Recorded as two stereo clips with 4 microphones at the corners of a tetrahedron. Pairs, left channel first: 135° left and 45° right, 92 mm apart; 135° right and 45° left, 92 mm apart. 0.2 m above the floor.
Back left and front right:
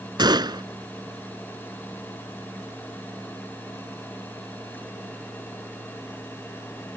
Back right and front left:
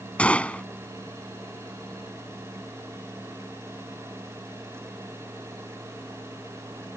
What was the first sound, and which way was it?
A gunshot, 60° right.